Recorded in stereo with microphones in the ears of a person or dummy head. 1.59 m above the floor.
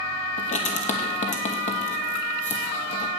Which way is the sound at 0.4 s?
45° left (ahead or behind).